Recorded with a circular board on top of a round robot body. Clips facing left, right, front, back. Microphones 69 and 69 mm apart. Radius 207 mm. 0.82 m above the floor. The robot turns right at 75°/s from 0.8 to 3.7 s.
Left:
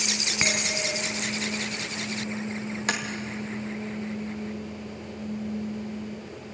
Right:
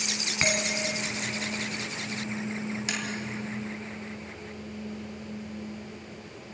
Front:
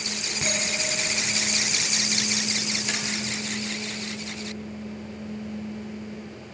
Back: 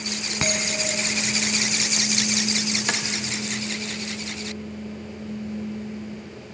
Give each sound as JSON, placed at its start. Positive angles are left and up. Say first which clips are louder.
{"t": 0.4, "sound": "a bell", "louder": "right 1 dB, back 3 dB", "azimuth_deg": 170, "distance_m": 1.5}
{"t": 2.9, "sound": "tapping", "louder": "left 9 dB, back 5 dB", "azimuth_deg": 135, "distance_m": 0.7}